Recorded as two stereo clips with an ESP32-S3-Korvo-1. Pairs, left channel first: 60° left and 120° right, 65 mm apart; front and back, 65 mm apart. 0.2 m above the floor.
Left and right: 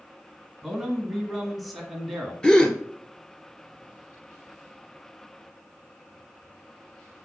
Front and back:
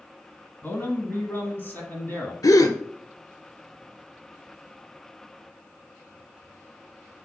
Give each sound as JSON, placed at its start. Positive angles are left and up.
{"t": 0.6, "sound": "a man speaking", "azimuth_deg": -25, "distance_m": 1.9}
{"t": 2.4, "sound": "a gasp", "azimuth_deg": -20, "distance_m": 0.9}